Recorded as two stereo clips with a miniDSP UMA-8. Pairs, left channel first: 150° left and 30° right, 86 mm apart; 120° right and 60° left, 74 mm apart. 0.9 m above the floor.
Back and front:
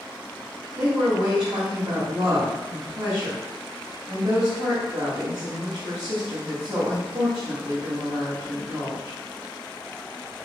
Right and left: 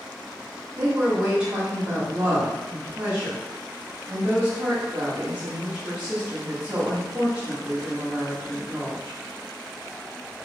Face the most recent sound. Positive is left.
turn(degrees=-5)